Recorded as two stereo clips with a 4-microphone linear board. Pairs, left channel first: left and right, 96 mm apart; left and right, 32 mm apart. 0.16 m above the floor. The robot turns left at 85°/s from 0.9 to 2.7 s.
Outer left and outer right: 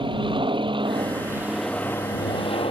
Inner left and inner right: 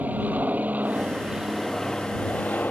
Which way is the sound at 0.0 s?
115° right.